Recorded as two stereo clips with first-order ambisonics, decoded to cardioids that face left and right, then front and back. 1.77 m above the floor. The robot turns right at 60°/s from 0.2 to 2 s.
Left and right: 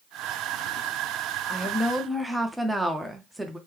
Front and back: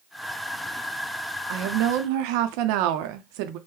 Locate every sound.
1.5 s a woman speaking: 155° left, 0.5 m; by 3.6 s 175° right, 0.5 m